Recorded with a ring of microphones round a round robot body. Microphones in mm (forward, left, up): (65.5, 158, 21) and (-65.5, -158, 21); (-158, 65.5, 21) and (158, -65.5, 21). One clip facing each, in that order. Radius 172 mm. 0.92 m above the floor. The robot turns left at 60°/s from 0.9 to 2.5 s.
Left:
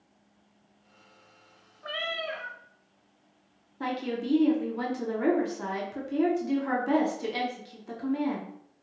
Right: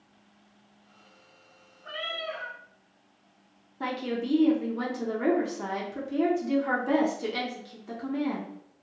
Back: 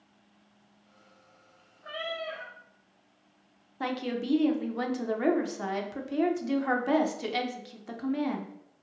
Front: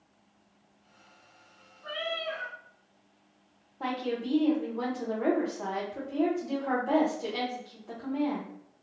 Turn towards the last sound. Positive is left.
turn(degrees=155)